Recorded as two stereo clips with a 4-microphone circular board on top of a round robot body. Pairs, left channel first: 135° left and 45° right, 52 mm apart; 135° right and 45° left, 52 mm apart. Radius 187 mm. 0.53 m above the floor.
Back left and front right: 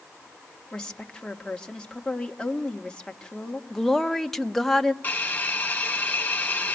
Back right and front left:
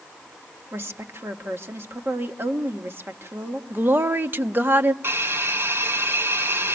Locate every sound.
0.7 s a woman speaking: 65° left, 2 m
3.7 s a woman speaking: 55° left, 1.2 m
5.0 s a hiss: 80° left, 3 m